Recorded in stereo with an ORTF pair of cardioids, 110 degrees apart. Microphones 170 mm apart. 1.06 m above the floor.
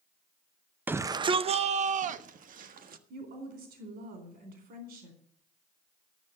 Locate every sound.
0.9 s a shout: 10° right, 0.5 m; by 3.0 s 55° right, 1.7 m
3.1 s a woman speaking: 70° right, 4 m